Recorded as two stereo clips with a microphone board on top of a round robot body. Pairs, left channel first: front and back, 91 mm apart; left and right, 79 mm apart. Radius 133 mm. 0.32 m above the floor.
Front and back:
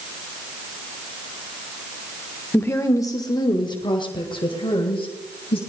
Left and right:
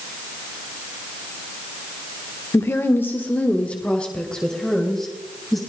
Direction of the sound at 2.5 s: 55° left.